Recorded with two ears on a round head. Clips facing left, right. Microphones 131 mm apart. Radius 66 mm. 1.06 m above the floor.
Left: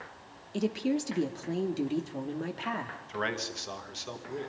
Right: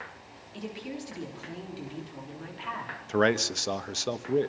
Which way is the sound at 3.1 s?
55° right (ahead or behind).